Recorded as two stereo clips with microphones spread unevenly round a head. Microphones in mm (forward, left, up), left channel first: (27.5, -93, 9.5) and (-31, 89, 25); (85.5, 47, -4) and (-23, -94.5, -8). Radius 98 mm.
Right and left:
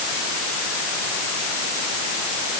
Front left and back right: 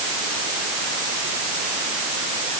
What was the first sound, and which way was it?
Only background noise.